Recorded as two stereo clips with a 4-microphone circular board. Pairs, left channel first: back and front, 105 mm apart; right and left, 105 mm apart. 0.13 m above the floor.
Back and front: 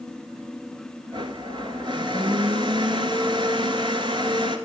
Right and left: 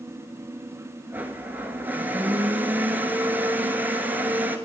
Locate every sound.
1.1 s a blender: 20° left, 1.1 m